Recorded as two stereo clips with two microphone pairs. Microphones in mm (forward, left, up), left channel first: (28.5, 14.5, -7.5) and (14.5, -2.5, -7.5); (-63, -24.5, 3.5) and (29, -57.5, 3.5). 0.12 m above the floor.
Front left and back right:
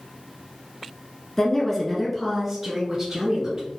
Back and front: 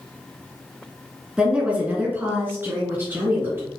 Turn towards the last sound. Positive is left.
turn(degrees=-80)